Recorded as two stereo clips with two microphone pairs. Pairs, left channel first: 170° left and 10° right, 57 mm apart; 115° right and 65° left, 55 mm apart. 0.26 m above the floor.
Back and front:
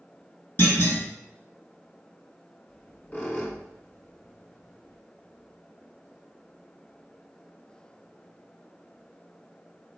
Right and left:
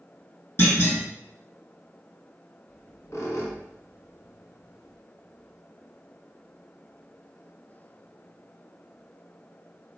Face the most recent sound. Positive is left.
turn(degrees=-135)